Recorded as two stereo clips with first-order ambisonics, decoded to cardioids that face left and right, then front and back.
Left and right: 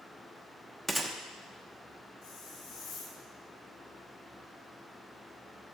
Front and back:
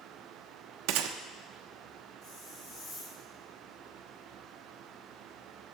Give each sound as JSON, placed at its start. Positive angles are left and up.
{"t": 0.9, "sound": "a gunshot", "azimuth_deg": -175, "distance_m": 0.7}
{"t": 2.2, "sound": "a hiss", "azimuth_deg": 45, "distance_m": 4.5}